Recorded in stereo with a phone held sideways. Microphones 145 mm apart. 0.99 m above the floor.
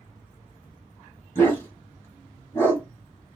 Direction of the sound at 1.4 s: 20° left (ahead or behind).